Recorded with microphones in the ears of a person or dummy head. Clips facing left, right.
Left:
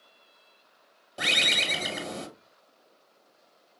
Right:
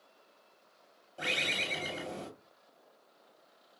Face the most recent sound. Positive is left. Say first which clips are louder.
# left 4 dB
turn(degrees=80)